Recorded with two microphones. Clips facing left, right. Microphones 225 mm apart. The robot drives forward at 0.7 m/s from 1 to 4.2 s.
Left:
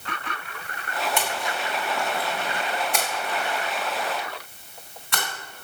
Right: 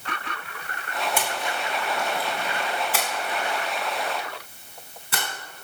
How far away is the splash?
About 2.5 m.